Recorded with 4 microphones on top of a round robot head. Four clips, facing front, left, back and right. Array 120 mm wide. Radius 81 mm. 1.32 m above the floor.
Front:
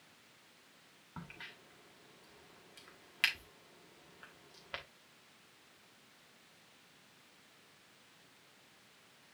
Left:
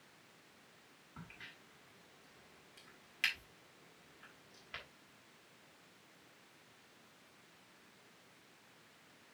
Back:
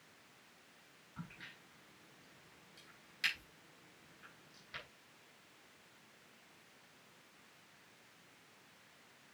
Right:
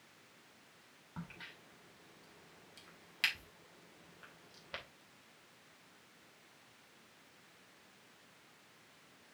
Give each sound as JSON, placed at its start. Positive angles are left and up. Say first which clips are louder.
{"t": 1.2, "sound": "a crack", "louder": "right 5 dB, front 2 dB", "azimuth_deg": -30, "distance_m": 2.5}